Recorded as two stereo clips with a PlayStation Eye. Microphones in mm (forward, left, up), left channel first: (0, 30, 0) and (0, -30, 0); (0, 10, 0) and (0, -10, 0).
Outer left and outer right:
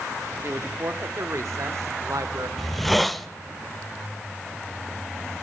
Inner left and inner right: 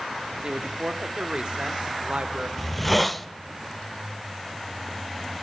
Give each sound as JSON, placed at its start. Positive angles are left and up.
{"t": 0.4, "sound": "a woman speaking", "side_deg": -40, "distance_m": 1.5}
{"t": 2.6, "sound": "a hiss", "side_deg": 0, "distance_m": 0.8}